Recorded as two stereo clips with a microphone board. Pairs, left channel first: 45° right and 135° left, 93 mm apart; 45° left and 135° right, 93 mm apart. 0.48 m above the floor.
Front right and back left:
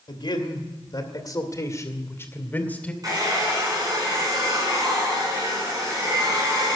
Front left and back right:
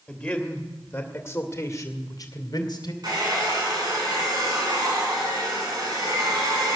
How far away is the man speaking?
About 2 m.